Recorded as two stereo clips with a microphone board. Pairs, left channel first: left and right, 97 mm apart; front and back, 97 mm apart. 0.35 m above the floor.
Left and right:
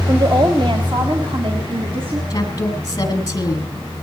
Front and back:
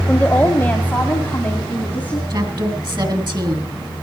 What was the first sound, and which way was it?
A woman speaking, 65° right.